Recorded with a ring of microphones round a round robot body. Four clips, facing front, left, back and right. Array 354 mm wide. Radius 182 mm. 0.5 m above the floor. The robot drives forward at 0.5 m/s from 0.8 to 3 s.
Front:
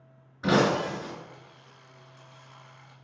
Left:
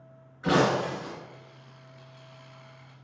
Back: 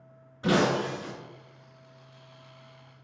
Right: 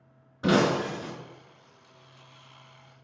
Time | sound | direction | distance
0.4 | breaking glass | 85° right | 3.5 m